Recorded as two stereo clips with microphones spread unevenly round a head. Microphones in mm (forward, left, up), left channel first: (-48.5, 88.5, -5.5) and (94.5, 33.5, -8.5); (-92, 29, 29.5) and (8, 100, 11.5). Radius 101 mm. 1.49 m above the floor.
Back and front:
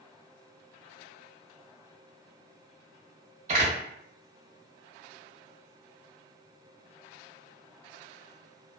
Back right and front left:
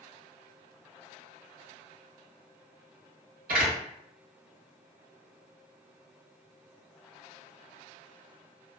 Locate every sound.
3.5 s a door slam: 20° left, 0.9 m